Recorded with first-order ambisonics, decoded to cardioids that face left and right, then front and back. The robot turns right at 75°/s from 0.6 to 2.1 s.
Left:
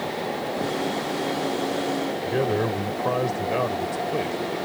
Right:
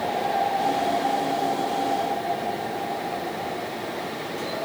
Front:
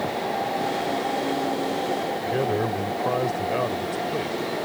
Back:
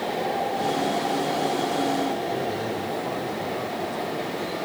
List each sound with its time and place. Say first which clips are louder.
2.2 s a man speaking: left 3 dB, front 3 dB; 60° left